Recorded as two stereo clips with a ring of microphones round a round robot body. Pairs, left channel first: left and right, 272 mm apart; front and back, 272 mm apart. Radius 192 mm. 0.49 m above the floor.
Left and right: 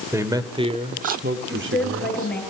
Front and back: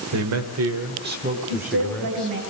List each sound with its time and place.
0.1 s a man speaking: 170° right, 2 m; by 2.4 s 60° right, 1.7 m
1.5 s a woman speaking: straight behind, 8 m